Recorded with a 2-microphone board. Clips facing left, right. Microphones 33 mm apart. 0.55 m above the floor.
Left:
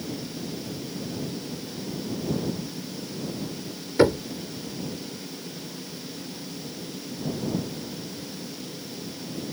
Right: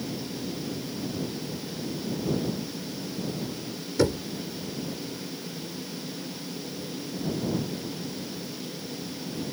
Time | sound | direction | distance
4.0 | knocking | 30° left (ahead or behind) | ?